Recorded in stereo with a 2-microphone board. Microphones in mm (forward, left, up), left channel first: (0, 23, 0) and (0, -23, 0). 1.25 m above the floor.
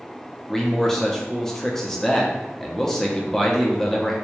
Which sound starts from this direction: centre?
A man speaking, at 0.5 s.